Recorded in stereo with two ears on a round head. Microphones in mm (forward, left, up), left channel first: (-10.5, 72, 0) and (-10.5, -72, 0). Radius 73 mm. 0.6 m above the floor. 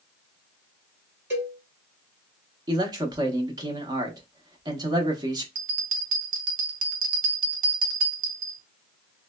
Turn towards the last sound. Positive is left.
turn(degrees=-55)  # may be behind; listen again after turning